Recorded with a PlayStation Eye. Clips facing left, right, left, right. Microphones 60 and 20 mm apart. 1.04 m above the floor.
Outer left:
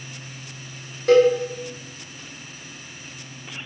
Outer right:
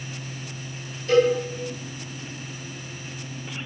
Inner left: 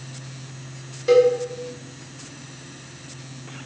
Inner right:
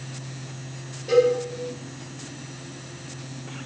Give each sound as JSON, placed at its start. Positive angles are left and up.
{"t": 1.1, "sound": "a cowbell", "side_deg": 65, "distance_m": 0.8}